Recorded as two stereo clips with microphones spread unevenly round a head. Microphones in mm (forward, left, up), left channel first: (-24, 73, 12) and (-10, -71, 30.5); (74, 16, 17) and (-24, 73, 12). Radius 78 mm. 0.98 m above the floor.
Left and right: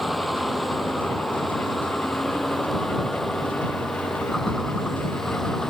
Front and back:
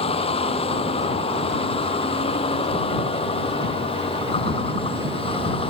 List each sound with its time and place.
0.0 s a vehicle: 5° left